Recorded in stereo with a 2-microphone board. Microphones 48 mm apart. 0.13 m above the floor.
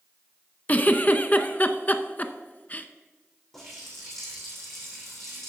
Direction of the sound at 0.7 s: 35° left (ahead or behind).